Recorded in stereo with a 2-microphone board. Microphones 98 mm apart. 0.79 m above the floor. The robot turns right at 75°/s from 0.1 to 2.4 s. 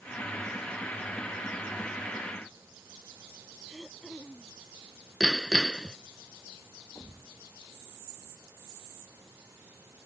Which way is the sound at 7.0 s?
25° left (ahead or behind).